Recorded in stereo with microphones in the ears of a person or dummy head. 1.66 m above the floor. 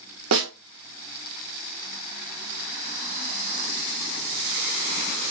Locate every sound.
0.3 s a snare drum: 65° right (ahead or behind), 0.9 m